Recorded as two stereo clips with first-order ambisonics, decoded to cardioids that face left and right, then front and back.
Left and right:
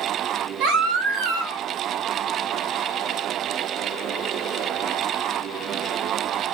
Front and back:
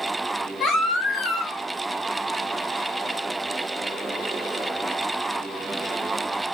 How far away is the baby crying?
About 1.5 m.